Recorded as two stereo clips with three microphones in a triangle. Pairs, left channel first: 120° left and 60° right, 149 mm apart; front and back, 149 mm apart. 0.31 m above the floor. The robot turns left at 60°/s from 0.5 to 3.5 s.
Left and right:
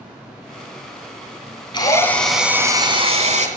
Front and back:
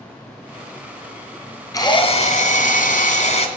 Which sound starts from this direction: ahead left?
A drill, at 1.7 s.